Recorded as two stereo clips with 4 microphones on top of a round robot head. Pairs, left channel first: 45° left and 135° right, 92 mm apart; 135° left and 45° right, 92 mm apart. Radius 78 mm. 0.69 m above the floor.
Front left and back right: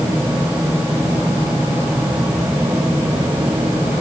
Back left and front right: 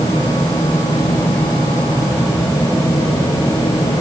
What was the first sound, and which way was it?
Only background noise.